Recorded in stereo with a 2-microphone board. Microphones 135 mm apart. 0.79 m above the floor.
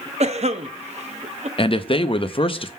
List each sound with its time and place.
0.2 s a cough: 55° right (ahead or behind), 0.7 m
1.6 s a man speaking: 40° left (ahead or behind), 0.5 m